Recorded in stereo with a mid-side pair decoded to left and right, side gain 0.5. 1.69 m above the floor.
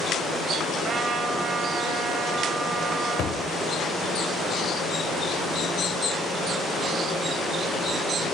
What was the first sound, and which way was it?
A trumpet, 40° right.